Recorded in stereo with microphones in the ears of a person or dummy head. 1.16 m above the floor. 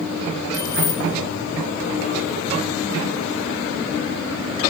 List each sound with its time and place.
0.5 s keys jangling: 20° left (ahead or behind), 3.5 m